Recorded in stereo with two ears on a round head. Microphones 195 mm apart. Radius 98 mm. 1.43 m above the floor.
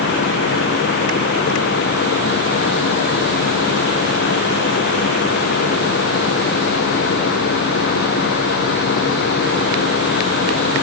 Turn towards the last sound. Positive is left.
No sound to turn to.